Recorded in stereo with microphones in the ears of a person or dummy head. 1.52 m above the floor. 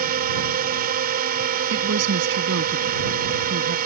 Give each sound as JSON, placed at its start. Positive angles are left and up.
{"t": 0.0, "sound": "a drone", "side_deg": -45}
{"t": 1.7, "sound": "a woman speaking", "side_deg": -65}